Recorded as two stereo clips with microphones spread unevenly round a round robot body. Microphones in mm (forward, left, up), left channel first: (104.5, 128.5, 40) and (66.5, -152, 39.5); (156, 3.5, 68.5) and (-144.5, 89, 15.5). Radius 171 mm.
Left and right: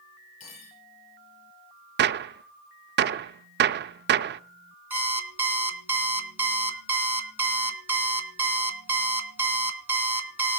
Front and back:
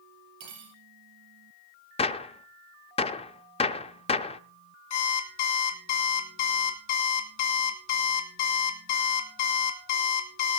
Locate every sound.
0.4 s cutlery clinking: 135° left, 5.5 m
2.0 s a gunshot: 90° right, 0.5 m
4.9 s an alarm clock: 15° right, 2.5 m